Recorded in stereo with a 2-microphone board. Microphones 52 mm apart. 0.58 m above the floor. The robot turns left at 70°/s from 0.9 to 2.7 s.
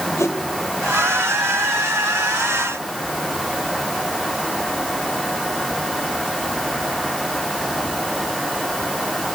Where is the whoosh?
70° left (ahead or behind), 1.9 m.